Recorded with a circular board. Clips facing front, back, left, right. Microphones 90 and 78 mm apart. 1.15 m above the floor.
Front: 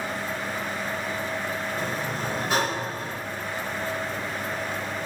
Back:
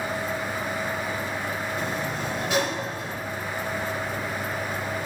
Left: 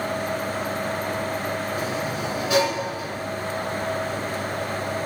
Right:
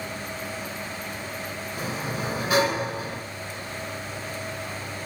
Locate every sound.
1.8 s a sliding door: 50° right, 2.0 m